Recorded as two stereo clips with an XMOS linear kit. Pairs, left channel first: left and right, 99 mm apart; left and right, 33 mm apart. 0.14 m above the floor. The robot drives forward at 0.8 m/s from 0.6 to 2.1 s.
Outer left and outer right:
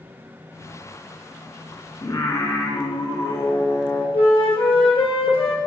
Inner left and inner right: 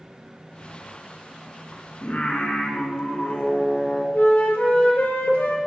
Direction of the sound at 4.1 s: 65° left (ahead or behind).